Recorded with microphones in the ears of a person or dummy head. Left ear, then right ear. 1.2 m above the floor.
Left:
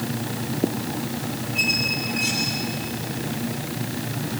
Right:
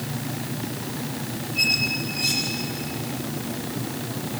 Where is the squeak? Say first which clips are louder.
Even; 25° left (ahead or behind), 6.5 m.